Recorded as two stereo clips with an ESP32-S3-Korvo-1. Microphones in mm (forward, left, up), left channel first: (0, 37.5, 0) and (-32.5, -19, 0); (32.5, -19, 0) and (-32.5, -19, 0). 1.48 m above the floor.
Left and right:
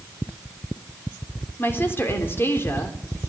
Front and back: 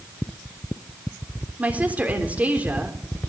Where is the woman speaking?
115° left, 3.5 m.